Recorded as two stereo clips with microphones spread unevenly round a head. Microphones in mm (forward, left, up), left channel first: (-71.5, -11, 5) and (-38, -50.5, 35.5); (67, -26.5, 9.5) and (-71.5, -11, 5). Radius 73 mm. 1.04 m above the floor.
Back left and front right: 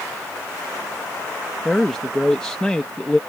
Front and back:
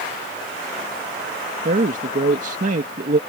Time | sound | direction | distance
1.6 | a man speaking | 160° right | ?